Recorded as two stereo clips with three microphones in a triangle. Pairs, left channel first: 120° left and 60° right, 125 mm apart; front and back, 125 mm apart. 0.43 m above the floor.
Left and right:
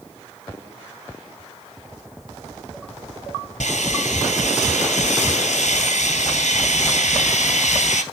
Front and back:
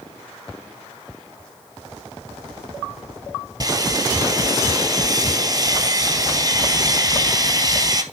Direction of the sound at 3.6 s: 125° left.